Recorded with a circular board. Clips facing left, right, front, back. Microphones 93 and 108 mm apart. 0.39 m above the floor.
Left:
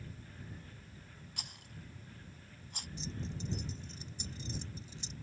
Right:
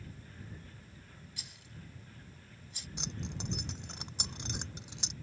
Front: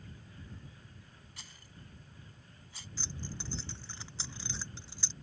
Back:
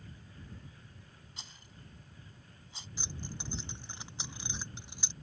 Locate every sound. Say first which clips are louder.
1.4 s a rattle: left 1 dB, back 1 dB; 115° left
3.0 s keys jangling: right 1 dB, even; 110° right